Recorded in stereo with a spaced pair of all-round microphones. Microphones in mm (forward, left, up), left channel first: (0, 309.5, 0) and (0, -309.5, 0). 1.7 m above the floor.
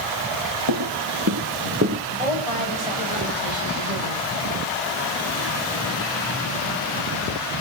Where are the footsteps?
40° right (ahead or behind), 3 m; by 2.0 s 20° right (ahead or behind), 2.5 m.